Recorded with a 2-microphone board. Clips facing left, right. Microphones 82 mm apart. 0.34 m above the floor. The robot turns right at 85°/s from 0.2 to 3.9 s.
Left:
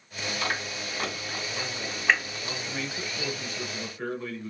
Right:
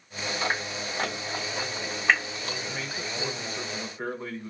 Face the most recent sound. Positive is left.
turn(degrees=-45)